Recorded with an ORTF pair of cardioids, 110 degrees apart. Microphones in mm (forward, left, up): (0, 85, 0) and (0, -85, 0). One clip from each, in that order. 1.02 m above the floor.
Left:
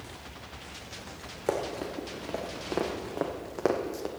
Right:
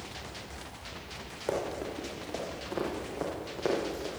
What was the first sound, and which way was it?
Running footsteps, 30° left.